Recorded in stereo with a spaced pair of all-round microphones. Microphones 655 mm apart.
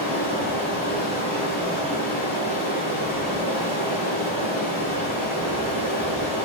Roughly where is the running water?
Centre.